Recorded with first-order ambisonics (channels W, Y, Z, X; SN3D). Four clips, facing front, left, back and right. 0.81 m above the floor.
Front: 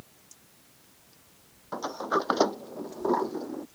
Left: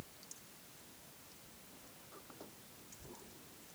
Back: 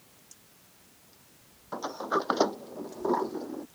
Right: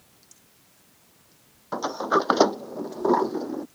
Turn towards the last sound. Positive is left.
turn(degrees=-85)